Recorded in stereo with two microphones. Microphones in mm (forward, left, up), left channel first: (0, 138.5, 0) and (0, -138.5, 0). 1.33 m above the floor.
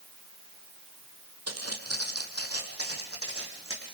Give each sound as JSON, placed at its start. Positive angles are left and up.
{"t": 1.5, "sound": "footsteps", "side_deg": -60, "distance_m": 2.5}